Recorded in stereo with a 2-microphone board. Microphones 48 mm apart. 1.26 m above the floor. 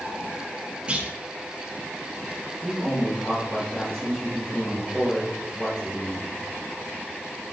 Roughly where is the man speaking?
Centre.